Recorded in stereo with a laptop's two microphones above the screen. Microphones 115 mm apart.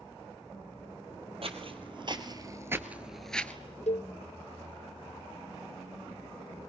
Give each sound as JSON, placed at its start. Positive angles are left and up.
{"t": 1.4, "sound": "footsteps", "side_deg": -55, "distance_m": 1.8}
{"t": 3.9, "sound": "a cowbell", "side_deg": 75, "distance_m": 0.6}